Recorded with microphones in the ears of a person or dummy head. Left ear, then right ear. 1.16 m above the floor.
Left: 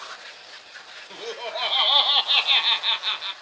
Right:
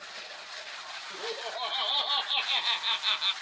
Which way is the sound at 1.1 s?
55° left (ahead or behind).